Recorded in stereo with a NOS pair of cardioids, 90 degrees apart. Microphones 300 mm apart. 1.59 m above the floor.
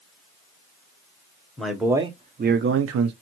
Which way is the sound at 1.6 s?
5° left.